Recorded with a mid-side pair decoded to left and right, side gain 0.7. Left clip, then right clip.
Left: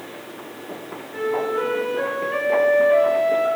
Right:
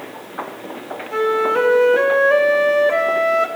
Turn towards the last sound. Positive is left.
turn(degrees=-65)